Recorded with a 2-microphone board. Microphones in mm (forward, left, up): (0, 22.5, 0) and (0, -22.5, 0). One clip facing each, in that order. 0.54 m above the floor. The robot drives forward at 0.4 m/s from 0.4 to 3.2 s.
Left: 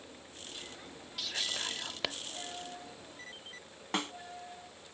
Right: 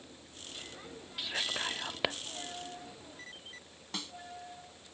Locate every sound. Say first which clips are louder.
1.2 s whispering: right 2 dB; 20° right (ahead or behind)
3.9 s a snare drum: left 8 dB; 50° left (ahead or behind)